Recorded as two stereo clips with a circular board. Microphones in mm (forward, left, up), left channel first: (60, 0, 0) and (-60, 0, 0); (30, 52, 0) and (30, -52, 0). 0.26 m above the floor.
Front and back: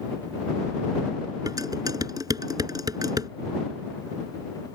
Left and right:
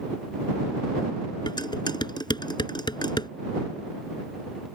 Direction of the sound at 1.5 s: 125° left.